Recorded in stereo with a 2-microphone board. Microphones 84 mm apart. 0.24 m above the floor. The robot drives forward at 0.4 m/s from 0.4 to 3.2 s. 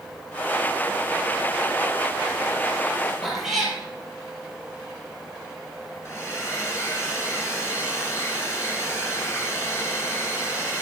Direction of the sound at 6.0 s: 25° left (ahead or behind).